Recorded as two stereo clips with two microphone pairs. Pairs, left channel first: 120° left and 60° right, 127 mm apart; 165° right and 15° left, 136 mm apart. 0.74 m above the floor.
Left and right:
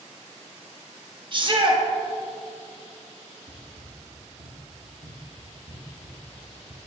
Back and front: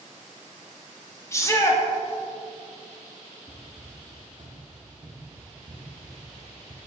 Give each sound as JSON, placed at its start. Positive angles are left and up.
{"t": 1.3, "sound": "a shout", "azimuth_deg": -100, "distance_m": 0.9}
{"t": 3.5, "sound": "running footsteps", "azimuth_deg": -70, "distance_m": 1.9}